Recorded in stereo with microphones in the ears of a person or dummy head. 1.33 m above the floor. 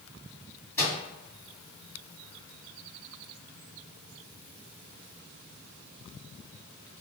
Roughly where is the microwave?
Centre.